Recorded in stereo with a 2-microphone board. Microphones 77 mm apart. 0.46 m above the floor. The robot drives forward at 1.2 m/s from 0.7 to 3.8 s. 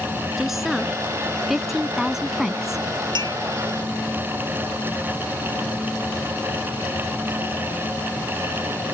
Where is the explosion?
No explosion in this recording.